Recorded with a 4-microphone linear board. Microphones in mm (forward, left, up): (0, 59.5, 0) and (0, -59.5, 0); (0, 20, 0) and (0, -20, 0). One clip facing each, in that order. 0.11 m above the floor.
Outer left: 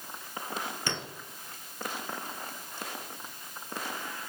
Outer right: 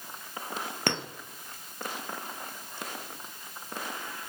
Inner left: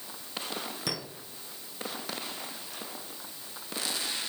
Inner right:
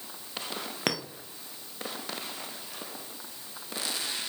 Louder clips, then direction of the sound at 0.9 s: Outer right 8 dB, inner right 7 dB; 60° right (ahead or behind).